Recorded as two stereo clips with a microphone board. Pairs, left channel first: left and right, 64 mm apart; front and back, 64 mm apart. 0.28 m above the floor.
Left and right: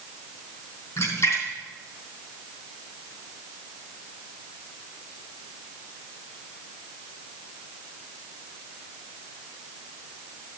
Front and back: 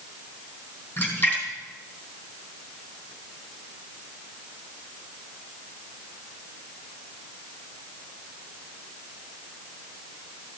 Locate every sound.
1.0 s a splash: 60° left, 3.5 m